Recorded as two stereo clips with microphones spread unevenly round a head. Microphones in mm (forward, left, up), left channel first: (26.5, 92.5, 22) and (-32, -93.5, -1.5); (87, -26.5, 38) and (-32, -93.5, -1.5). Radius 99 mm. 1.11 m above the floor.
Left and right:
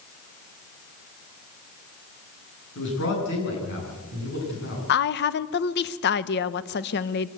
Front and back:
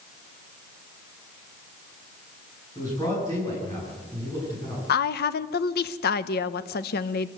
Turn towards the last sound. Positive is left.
turn(degrees=35)